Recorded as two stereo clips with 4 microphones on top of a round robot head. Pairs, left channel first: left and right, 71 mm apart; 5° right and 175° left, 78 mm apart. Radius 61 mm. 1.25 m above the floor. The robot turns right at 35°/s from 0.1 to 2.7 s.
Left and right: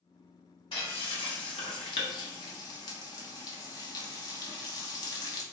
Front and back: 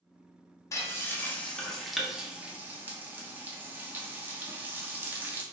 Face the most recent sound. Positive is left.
turn(degrees=115)